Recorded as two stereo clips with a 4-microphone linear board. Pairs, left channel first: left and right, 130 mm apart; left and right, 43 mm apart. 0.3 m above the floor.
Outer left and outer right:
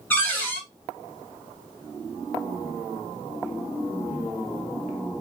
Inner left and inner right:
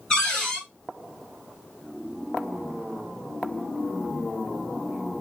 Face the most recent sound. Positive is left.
turn(degrees=15)  # may be behind; listen again after turning